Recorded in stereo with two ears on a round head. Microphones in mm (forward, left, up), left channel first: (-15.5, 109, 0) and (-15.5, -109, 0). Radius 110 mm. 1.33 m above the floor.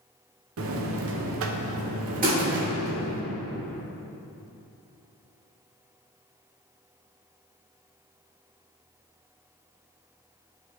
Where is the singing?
No singing in this recording.